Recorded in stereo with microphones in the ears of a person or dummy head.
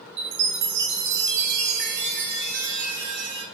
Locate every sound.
0.2 s a chime: 65° right (ahead or behind), 1.3 m